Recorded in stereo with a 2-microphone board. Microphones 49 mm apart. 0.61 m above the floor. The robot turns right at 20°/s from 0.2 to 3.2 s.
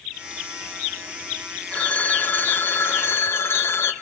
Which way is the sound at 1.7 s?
25° left (ahead or behind).